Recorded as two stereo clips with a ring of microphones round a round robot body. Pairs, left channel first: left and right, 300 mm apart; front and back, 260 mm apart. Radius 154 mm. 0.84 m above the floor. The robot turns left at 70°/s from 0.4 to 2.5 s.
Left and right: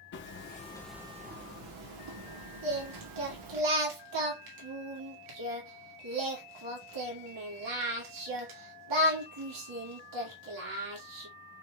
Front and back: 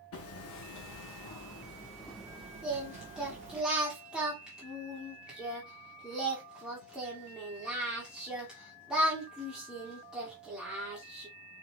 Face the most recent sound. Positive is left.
turn(degrees=-95)